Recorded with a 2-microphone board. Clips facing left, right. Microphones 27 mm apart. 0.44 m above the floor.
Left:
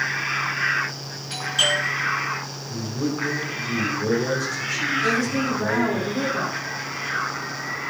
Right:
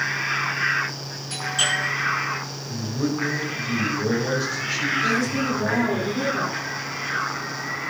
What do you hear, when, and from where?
1.3 s a doorbell: 15° left (ahead or behind), 8 m
2.7 s a man speaking: 20° right (ahead or behind), 4.5 m
5.0 s a woman speaking: 5° left (ahead or behind), 4.5 m